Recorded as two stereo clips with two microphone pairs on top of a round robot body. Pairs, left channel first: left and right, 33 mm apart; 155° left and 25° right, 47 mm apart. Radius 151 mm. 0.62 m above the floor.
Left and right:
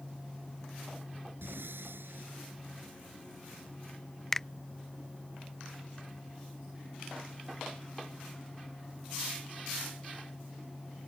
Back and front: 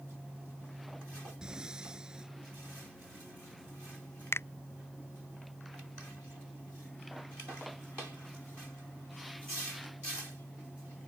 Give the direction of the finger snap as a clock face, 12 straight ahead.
7 o'clock.